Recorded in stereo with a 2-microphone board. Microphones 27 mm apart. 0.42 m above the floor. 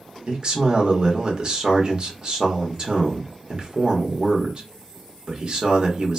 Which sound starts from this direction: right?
A man speaking, at 0.3 s.